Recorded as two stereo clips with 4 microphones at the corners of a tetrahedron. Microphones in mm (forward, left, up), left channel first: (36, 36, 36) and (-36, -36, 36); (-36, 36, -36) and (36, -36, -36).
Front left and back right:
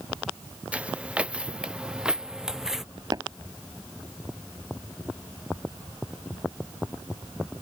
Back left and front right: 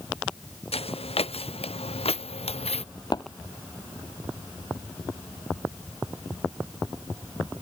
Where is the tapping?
Straight behind.